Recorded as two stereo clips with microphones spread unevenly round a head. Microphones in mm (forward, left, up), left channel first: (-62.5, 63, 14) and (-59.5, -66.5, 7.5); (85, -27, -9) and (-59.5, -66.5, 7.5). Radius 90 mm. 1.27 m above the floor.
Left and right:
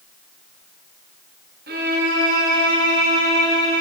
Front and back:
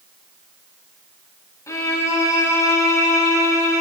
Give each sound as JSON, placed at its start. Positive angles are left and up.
{"t": 1.7, "sound": "a violin", "azimuth_deg": -55, "distance_m": 4.5}